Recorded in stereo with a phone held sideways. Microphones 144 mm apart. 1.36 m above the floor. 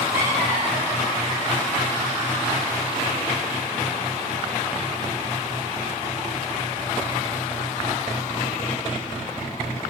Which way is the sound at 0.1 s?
30° right (ahead or behind).